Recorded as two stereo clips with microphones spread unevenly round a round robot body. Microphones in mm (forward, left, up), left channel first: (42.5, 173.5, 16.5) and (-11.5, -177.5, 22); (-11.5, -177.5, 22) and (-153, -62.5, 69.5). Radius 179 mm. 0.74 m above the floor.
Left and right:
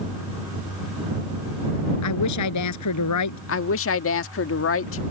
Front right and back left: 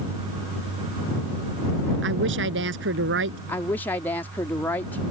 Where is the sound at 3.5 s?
35° left.